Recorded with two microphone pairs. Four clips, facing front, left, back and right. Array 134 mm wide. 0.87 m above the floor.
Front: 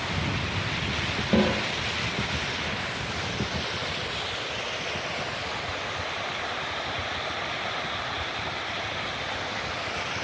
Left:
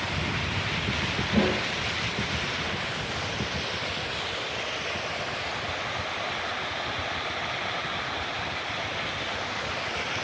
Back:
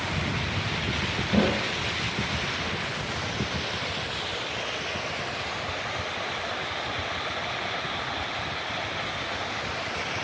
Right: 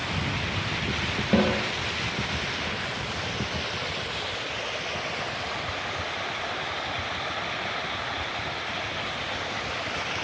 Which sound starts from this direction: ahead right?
A snare drum, at 1.3 s.